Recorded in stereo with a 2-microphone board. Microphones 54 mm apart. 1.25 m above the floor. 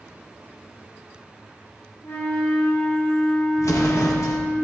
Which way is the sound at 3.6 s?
75° left (ahead or behind).